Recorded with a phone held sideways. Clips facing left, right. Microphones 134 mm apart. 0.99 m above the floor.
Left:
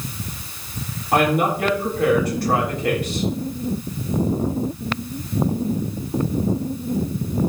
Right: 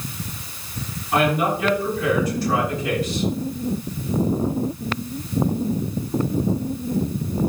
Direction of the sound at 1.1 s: 65° left (ahead or behind).